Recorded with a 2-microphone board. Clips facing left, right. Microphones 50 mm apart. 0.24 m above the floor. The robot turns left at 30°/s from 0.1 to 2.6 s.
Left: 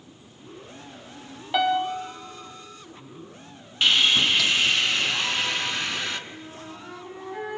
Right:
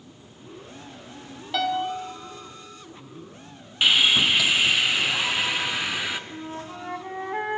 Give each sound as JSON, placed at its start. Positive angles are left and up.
{"t": 1.5, "sound": "a piano", "side_deg": 15, "distance_m": 1.6}
{"t": 3.8, "sound": "sawing", "side_deg": -10, "distance_m": 1.3}
{"t": 6.3, "sound": "a flute", "side_deg": -50, "distance_m": 2.0}